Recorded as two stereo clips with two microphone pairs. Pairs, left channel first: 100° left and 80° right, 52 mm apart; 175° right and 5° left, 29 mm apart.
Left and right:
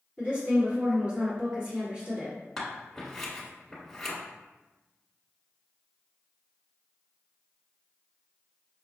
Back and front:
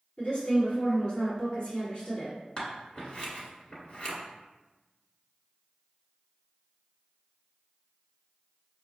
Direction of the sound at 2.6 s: 175° right.